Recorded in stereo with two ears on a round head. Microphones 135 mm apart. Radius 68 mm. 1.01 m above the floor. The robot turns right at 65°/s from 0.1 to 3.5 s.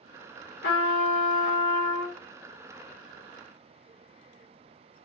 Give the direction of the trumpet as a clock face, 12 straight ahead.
9 o'clock.